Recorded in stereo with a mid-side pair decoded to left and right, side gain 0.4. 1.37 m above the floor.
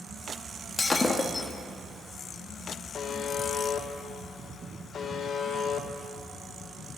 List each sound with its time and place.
0.8 s breaking glass: 30° left, 1.5 m
2.9 s a buzzer: 60° left, 1.4 m